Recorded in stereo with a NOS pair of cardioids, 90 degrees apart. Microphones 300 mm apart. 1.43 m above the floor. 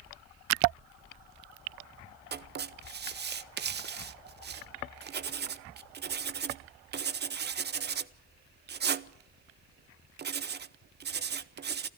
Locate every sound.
2.3 s writing: 35° right, 0.8 m